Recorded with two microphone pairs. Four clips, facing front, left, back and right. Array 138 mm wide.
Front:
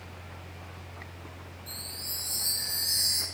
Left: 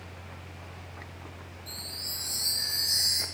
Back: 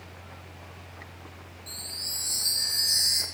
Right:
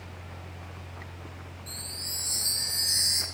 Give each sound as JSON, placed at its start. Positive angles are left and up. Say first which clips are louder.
{"t": 1.7, "sound": "a chime", "louder": "right 1 dB, even", "azimuth_deg": -105, "distance_m": 0.6}